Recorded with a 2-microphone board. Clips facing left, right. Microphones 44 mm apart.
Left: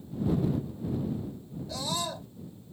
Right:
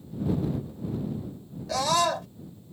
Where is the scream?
75° right (ahead or behind).